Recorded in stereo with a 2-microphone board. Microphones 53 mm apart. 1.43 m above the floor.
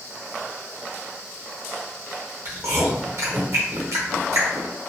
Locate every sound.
2.5 s chewing: 60° right (ahead or behind), 1.0 m